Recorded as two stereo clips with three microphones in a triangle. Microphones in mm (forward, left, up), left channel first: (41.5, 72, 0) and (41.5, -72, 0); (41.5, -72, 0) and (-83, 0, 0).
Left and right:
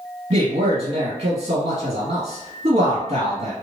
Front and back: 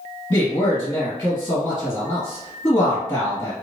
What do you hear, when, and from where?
0.3 s a man speaking: 95° right, 1.9 m